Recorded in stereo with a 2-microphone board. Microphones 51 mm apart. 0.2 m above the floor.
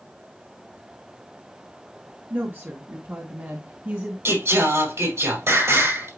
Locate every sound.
2.3 s a woman speaking: 45° right (ahead or behind), 2 m; by 4.2 s 40° right (ahead or behind), 2 m
4.2 s singing: 60° right (ahead or behind), 4.5 m